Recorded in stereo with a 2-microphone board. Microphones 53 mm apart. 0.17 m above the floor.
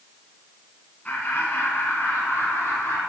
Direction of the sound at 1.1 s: 25° left (ahead or behind).